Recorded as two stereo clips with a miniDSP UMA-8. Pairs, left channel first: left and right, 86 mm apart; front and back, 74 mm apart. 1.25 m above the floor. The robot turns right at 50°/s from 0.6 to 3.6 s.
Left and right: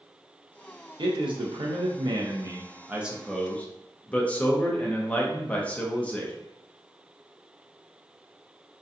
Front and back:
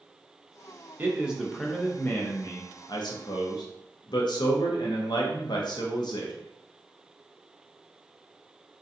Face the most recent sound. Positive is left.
turn(degrees=15)